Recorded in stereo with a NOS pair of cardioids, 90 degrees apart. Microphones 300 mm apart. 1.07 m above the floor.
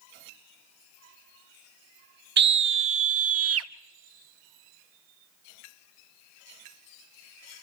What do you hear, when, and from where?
2.4 s a scream: 35° right, 0.7 m; by 3.7 s 50° right, 1.3 m